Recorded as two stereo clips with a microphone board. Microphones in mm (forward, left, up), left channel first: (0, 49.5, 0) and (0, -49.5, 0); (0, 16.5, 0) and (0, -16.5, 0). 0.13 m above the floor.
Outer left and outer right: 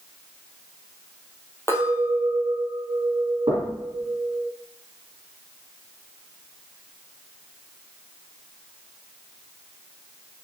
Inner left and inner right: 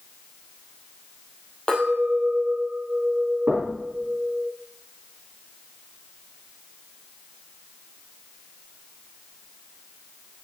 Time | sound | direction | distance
1.7 | a clink | 25° left (ahead or behind) | 2.5 m
3.5 | knocking | 65° right (ahead or behind) | 3 m